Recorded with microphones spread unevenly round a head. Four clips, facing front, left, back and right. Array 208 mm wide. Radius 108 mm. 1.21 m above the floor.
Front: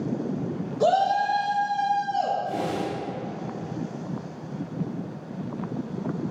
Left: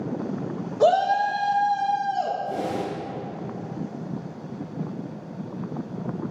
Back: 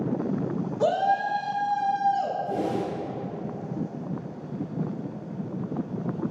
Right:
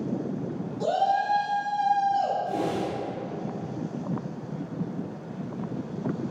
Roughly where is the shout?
Left.